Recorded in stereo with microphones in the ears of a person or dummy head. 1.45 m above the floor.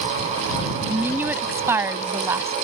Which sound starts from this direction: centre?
A woman speaking, at 0.9 s.